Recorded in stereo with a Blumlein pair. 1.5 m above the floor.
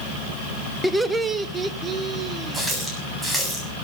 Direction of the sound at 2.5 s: 5° right.